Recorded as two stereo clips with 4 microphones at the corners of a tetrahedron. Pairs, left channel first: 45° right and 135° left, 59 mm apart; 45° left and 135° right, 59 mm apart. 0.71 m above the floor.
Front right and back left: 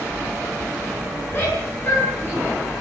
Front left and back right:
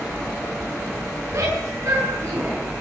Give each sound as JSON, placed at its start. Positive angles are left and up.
{"t": 1.3, "sound": "a shout", "azimuth_deg": -100, "distance_m": 9.0}